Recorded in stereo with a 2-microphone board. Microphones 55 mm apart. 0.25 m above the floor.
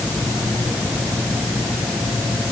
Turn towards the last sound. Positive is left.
No sound to turn to.